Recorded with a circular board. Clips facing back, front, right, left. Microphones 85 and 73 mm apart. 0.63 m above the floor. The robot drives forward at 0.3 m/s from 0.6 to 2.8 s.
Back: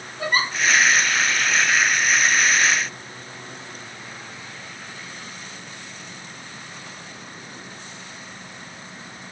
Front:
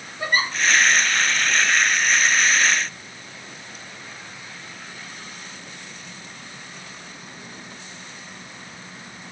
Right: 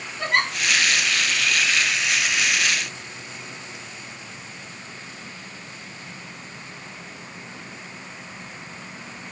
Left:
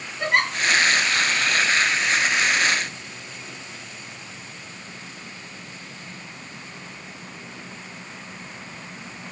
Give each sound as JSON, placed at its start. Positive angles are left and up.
{"t": 0.2, "sound": "a giggle", "azimuth_deg": 180, "distance_m": 2.5}